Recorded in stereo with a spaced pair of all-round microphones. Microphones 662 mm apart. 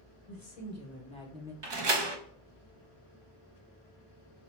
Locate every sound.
0.3 s a woman speaking: 35° left (ahead or behind), 1.6 m; by 1.5 s 5° right (ahead or behind), 1.1 m
1.6 s a door slam: 40° right (ahead or behind), 0.6 m